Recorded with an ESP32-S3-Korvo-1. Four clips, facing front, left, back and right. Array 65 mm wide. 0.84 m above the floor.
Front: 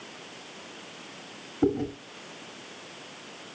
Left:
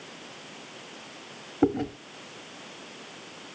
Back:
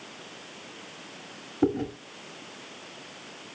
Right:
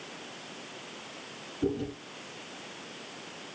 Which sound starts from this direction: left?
Chewing, at 1.6 s.